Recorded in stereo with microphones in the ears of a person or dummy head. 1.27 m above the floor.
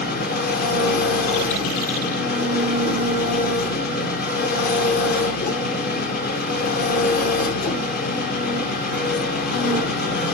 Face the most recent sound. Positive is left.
turn(degrees=50)  # may be behind; listen again after turning